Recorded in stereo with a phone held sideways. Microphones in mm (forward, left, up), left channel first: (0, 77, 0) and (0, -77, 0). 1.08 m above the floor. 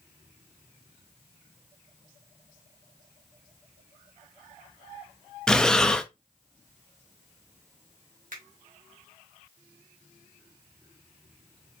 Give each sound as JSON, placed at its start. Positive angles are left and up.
{"t": 5.5, "sound": "breathing", "side_deg": 5, "distance_m": 0.5}
{"t": 8.3, "sound": "a finger snap", "side_deg": -60, "distance_m": 1.8}